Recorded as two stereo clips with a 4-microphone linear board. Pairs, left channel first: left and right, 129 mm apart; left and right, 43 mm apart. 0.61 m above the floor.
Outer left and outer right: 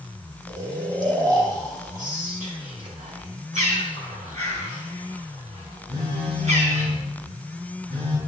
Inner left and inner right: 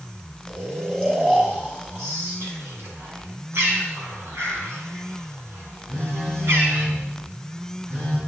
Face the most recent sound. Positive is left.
turn(degrees=-45)  # may be behind; listen again after turning